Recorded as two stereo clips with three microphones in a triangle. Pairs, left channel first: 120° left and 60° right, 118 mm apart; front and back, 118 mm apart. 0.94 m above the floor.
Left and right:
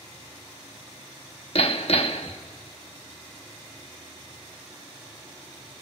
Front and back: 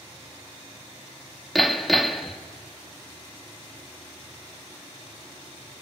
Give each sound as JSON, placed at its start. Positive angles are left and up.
{"t": 1.6, "sound": "hammering", "azimuth_deg": 90, "distance_m": 1.3}